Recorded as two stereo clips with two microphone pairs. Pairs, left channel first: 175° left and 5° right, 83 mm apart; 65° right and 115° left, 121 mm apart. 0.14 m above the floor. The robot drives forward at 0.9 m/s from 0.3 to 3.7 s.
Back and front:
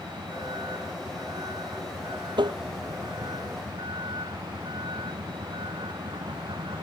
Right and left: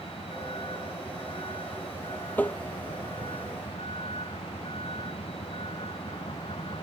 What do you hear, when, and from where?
0.0 s a vehicle: 25° right
2.4 s tapping: 10° left